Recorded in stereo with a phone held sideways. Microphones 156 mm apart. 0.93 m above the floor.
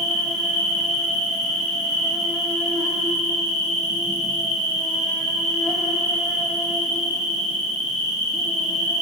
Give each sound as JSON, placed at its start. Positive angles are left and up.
{"t": 0.0, "sound": "an insect", "side_deg": 5, "distance_m": 1.2}